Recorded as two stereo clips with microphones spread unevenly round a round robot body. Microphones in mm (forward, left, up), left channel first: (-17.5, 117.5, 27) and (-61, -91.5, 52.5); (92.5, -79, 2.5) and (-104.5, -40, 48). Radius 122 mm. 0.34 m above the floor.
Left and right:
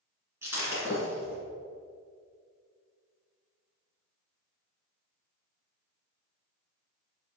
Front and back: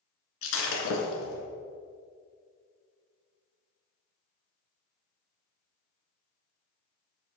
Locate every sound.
0.4 s breaking glass: 20° right, 1.7 m